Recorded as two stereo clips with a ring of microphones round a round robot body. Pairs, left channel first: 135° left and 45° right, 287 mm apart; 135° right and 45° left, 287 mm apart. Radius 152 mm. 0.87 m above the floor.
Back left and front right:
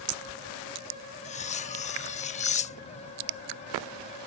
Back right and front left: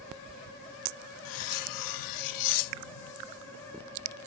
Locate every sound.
1.2 s cutlery clinking: 155° right